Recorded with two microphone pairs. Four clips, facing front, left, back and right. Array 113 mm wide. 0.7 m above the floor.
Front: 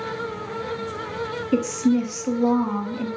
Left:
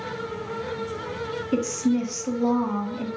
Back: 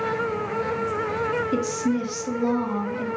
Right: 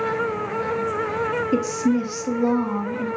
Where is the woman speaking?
30° right, 0.6 m.